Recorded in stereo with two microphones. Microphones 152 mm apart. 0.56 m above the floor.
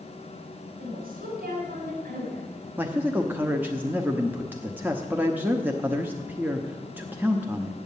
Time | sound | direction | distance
0.8 | a woman speaking | 75° right (ahead or behind) | 4 m
2.8 | a man speaking | 15° right (ahead or behind) | 0.8 m